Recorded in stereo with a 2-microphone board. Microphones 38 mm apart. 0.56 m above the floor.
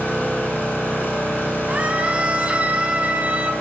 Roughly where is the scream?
Right.